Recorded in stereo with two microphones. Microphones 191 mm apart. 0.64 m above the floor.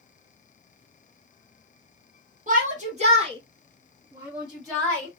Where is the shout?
45° right (ahead or behind), 1.6 m; by 5.1 s 10° left (ahead or behind), 1.2 m.